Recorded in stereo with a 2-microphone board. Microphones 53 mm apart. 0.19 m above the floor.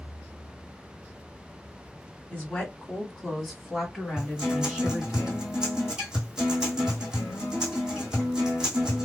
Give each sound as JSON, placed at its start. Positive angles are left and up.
{"t": 2.3, "sound": "a woman speaking", "side_deg": 20, "distance_m": 1.1}
{"t": 4.2, "sound": "a guitar", "side_deg": -10, "distance_m": 1.7}